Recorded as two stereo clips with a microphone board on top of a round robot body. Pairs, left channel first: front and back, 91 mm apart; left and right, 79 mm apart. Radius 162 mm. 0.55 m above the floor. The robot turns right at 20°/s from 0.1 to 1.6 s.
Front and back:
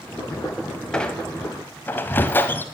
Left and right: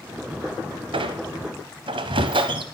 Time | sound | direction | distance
0.9 | a squeak | 80° right | 0.7 m